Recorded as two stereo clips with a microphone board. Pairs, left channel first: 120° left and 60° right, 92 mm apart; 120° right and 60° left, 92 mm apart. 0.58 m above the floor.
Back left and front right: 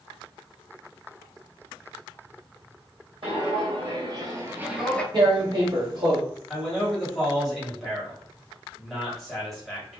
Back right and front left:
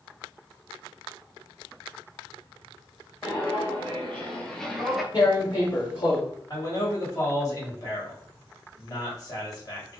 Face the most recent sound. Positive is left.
turn(degrees=-150)